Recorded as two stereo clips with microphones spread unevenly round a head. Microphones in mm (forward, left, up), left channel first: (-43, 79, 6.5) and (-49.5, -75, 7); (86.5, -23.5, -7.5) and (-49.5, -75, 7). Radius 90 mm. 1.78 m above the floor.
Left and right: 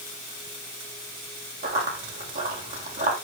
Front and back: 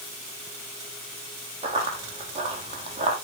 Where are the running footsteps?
115° right, 5 m; by 3.1 s 120° right, 4 m.